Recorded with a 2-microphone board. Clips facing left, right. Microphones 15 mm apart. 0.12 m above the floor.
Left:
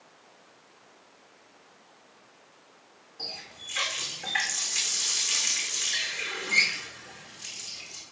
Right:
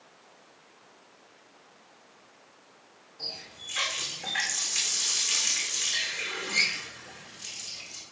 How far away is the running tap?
About 4.5 m.